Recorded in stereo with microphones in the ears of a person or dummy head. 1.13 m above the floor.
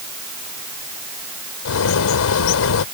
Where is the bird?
70° left (ahead or behind).